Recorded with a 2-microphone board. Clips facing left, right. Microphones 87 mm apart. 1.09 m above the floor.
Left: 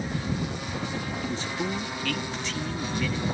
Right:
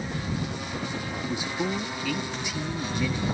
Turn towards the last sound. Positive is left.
turn(degrees=-10)  # may be behind; listen again after turning